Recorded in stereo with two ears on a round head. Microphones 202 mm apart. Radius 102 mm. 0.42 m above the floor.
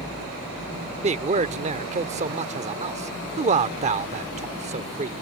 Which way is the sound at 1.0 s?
30° right (ahead or behind).